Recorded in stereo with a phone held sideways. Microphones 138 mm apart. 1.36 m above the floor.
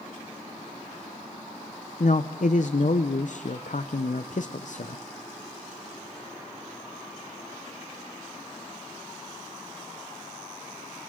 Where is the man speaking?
65° left (ahead or behind), 0.6 m.